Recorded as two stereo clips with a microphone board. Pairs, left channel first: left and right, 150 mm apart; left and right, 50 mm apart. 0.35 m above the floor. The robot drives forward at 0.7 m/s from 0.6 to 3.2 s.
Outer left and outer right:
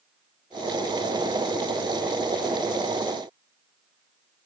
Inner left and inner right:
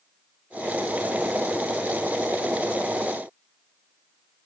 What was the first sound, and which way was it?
Only background noise.